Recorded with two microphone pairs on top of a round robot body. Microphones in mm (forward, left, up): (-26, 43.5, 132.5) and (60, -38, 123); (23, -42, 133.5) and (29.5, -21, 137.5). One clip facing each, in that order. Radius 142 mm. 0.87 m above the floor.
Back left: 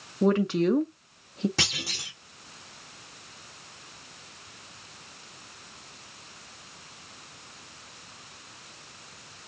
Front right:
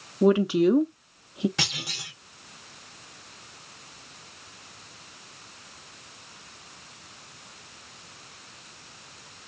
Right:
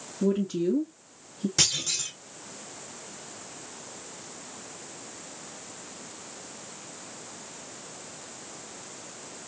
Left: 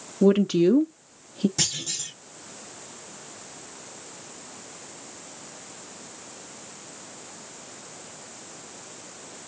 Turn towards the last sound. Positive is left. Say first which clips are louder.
# back left 1 dB, right 2 dB
turn(degrees=-165)